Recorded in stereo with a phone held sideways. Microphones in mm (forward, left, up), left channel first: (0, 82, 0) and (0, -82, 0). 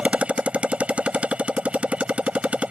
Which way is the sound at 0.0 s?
10° right (ahead or behind).